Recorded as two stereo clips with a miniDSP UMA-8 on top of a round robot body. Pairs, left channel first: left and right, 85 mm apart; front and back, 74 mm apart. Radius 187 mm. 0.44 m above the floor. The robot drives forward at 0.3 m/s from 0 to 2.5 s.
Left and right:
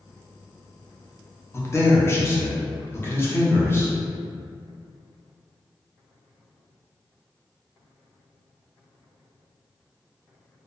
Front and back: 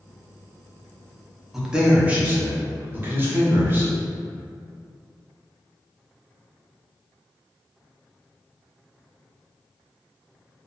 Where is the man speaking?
100° left, 0.8 m; by 3.9 s 135° left, 0.9 m.